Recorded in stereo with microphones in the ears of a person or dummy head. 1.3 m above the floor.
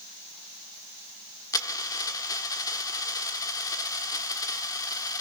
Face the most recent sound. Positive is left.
turn(degrees=20)  # may be behind; listen again after turning